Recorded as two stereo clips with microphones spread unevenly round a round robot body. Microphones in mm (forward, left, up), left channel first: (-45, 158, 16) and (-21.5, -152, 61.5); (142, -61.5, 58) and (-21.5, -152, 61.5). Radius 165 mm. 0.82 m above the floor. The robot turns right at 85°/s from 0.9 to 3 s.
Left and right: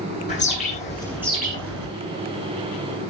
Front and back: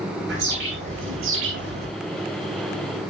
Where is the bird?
160° left, 10 m; by 1.9 s 115° right, 10 m.